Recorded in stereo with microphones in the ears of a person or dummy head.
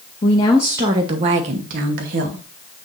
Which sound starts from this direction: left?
A woman speaking, at 0.2 s.